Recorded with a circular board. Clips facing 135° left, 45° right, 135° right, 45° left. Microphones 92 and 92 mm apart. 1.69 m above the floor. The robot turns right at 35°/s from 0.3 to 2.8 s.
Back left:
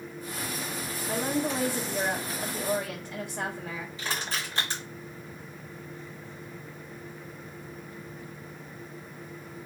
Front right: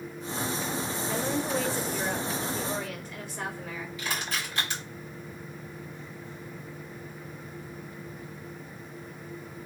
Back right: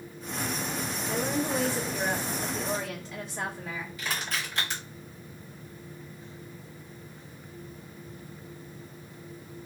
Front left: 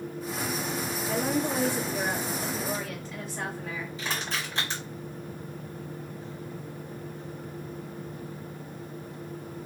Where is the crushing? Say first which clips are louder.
Even, even; 95° left, 2 m.